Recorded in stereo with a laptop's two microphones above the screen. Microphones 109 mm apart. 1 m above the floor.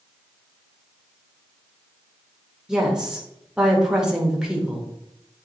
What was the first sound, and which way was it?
A woman speaking, 5° right (ahead or behind).